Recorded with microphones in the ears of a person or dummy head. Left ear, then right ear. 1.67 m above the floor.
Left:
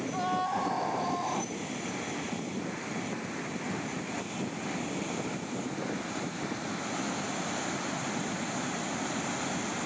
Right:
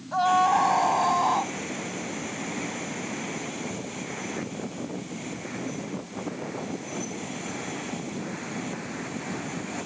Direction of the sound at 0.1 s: 35° right (ahead or behind).